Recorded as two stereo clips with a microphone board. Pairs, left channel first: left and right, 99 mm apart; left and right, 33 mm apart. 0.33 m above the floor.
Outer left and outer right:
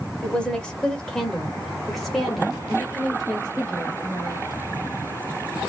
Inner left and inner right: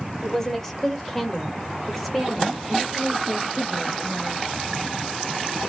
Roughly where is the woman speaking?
Centre.